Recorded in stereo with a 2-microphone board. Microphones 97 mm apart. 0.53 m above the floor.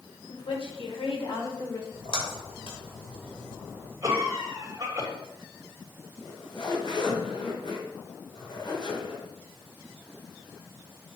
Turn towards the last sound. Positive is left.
turn(degrees=60)  # may be behind; listen again after turning